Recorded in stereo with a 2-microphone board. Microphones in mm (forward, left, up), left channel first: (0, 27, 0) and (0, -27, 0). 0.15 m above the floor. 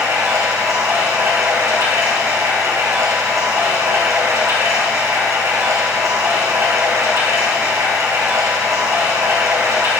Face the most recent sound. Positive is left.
turn(degrees=-85)